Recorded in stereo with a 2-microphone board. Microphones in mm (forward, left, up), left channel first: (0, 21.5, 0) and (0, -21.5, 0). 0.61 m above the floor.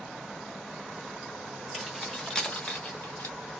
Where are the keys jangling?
Centre (ahead or behind), 1.1 m; by 3.4 s 65° left (ahead or behind), 0.8 m.